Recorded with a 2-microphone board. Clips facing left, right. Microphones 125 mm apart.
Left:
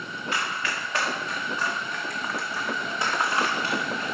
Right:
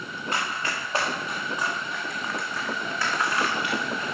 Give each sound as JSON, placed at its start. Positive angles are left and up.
{"t": 0.3, "sound": "running footsteps", "side_deg": -40, "distance_m": 2.5}